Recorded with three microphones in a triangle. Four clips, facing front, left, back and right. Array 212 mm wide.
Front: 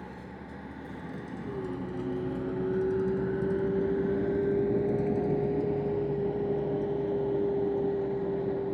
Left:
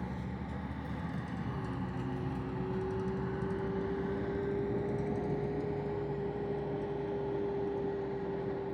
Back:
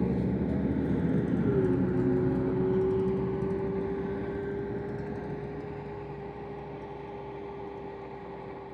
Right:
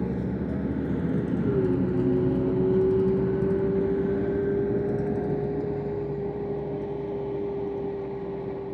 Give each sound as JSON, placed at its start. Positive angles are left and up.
{"t": 0.0, "sound": "a vehicle", "azimuth_deg": -140}